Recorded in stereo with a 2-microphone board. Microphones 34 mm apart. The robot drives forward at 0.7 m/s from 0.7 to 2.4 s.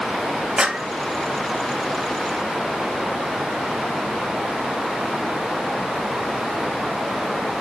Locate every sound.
0.6 s a clap: 20° right (ahead or behind), 0.9 m